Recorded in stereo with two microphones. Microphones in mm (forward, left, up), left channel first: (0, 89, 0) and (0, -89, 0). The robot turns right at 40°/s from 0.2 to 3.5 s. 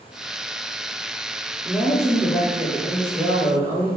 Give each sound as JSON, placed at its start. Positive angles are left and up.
{"t": 1.6, "sound": "a woman speaking", "azimuth_deg": 95, "distance_m": 1.6}